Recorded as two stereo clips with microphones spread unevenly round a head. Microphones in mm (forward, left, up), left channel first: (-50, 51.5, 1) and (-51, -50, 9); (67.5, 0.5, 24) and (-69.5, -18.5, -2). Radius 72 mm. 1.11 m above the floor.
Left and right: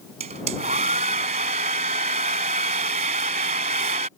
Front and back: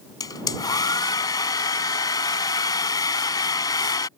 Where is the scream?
No scream in this recording.